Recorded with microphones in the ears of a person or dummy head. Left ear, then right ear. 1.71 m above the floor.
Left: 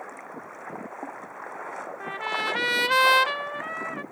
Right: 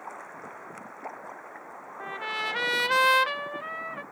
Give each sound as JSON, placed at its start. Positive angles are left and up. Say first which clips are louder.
{"t": 2.0, "sound": "a trumpet", "louder": "left 2 dB", "side_deg": 5}